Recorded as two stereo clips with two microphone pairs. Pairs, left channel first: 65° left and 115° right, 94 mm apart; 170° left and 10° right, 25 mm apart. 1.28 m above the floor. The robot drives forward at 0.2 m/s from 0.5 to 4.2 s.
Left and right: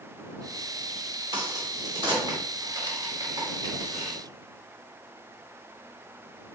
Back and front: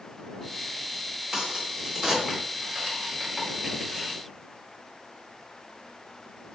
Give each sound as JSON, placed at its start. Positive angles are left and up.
{"t": 1.3, "sound": "a crack", "azimuth_deg": -80, "distance_m": 2.0}